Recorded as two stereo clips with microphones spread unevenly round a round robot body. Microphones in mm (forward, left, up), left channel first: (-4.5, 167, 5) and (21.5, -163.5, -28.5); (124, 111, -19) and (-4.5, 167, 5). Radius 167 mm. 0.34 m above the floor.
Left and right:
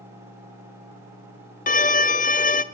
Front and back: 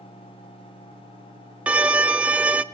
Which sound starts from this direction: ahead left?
A violin, at 1.7 s.